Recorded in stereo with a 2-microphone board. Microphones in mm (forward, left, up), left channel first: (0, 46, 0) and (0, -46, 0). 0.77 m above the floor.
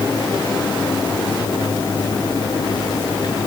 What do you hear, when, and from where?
Only background noise.